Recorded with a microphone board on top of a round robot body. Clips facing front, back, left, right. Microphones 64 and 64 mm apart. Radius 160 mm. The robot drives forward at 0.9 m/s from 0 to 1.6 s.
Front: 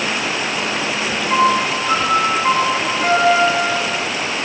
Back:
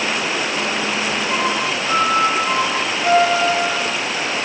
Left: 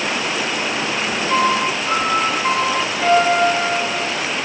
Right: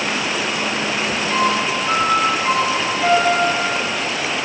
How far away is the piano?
About 2.5 m.